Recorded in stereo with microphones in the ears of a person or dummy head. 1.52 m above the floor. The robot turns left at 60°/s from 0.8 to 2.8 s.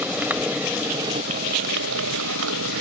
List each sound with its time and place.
0.0 s a motorcycle: 10° right; by 2.8 s 130° right